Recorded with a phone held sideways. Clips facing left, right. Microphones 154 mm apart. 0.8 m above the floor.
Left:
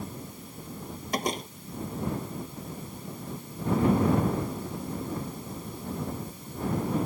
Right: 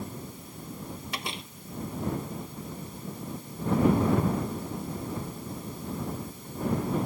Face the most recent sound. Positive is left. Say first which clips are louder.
# left 13 dB
turn(degrees=40)  # may be behind; listen again after turning